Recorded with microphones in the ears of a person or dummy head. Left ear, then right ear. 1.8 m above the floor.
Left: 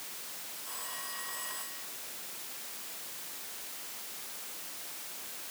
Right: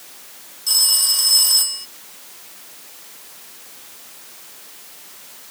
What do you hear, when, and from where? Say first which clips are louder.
0.7 s a phone ringing: right 26 dB; 75° right (ahead or behind)